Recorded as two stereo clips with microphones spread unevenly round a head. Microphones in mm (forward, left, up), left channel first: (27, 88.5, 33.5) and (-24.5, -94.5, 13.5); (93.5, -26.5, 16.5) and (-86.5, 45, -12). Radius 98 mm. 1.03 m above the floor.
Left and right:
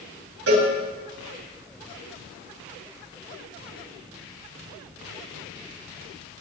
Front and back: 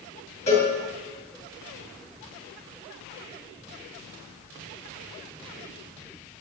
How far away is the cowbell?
About 6.5 m.